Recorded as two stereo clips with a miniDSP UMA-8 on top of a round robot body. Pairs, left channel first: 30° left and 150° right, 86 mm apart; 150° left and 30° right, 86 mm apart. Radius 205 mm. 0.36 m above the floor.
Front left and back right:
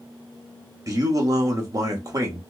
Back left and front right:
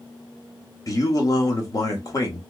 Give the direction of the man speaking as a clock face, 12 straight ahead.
6 o'clock.